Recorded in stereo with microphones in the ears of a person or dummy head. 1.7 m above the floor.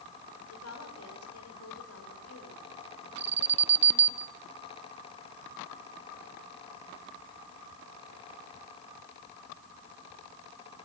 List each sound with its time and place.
0.5 s a woman speaking: 85° left, 6.5 m; by 4.2 s 70° left (ahead or behind), 11.5 m
3.2 s an alarm: 15° right (ahead or behind), 0.8 m